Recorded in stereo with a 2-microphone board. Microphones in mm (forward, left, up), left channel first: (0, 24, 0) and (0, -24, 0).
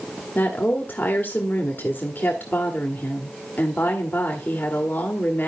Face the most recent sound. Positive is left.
turn(degrees=40)  # may be behind; listen again after turning